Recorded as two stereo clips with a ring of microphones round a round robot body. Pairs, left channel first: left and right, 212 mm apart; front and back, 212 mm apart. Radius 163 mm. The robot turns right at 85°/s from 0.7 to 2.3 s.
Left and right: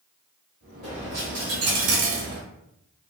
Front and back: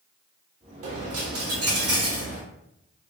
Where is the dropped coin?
Straight behind, 0.8 m; by 2.4 s 55° right, 0.8 m.